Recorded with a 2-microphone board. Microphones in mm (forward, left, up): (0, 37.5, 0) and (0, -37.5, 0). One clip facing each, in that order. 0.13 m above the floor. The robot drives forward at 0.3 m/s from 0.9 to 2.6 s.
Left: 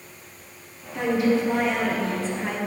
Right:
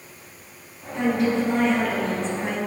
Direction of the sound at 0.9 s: 5° left (ahead or behind).